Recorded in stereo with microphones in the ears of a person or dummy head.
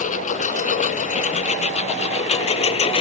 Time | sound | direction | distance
0.0 | a lawn mower | 45° left (ahead or behind) | ?